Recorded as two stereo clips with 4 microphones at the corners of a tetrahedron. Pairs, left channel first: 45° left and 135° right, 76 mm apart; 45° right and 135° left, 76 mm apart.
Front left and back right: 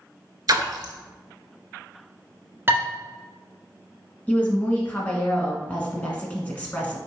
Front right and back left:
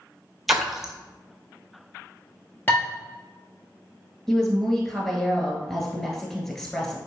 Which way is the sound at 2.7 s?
90° right.